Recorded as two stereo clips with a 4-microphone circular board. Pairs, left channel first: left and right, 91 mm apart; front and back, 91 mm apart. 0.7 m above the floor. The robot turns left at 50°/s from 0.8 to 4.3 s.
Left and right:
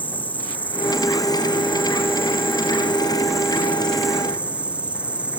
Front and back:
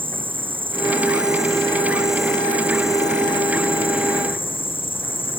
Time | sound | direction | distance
0.0 | an insect | 160° left | ?